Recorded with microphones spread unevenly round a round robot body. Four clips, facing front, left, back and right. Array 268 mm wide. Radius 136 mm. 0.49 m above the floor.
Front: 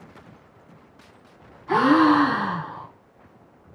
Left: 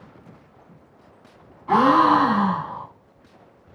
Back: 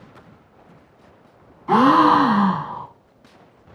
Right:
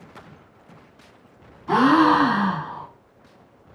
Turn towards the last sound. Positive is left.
turn(degrees=-155)